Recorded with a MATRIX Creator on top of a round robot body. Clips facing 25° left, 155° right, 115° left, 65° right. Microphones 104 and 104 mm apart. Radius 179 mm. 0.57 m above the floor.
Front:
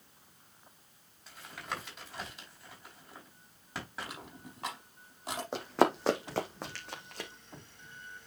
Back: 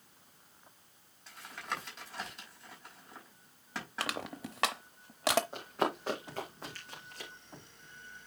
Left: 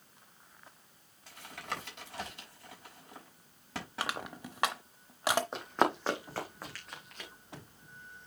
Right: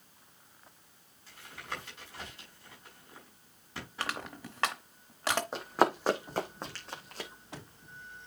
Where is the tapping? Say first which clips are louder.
Even, left 2 dB; 110° left, 4.5 m.